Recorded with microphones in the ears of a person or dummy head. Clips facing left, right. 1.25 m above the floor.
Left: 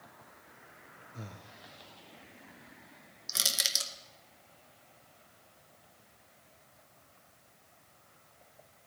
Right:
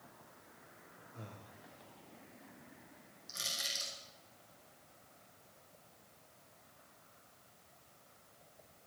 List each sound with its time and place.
1.1 s breathing: 20° left (ahead or behind), 0.9 m
3.3 s crushing: 80° left, 1.6 m